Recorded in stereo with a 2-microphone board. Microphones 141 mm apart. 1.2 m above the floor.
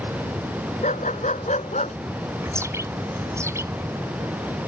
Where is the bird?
20° right (ahead or behind).